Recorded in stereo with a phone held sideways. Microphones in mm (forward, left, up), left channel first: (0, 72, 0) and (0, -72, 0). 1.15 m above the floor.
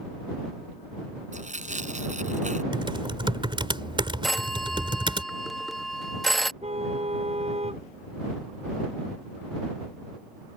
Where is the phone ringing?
Centre (ahead or behind).